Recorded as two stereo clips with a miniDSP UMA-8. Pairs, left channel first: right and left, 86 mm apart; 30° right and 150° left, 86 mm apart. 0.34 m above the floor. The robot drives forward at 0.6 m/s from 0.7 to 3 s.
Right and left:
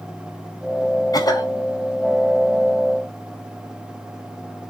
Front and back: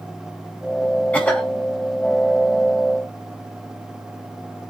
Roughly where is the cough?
Right.